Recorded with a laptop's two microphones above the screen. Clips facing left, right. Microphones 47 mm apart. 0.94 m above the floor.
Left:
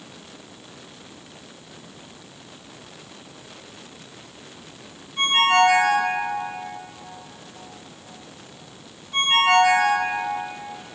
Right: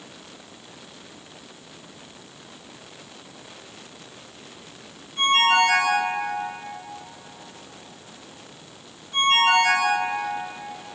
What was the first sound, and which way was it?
A ringtone, 30° left (ahead or behind).